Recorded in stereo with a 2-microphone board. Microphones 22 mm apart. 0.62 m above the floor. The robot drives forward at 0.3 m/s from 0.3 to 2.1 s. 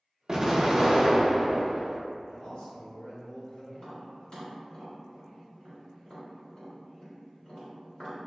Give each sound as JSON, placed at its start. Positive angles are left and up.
{"t": 0.3, "sound": "an explosion", "side_deg": -25, "distance_m": 0.5}
{"t": 2.3, "sound": "a man speaking", "side_deg": 55, "distance_m": 1.3}
{"t": 3.7, "sound": "tapping", "side_deg": 35, "distance_m": 1.6}